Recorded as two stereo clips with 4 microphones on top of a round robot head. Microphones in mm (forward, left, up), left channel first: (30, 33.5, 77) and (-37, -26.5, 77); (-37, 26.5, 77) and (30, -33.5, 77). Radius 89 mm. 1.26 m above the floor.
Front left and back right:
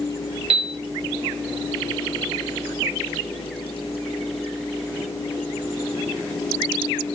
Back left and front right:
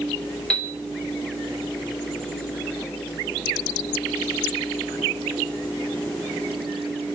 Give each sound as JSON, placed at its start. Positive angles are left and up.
{"t": 0.5, "sound": "a piano", "azimuth_deg": -140, "distance_m": 0.6}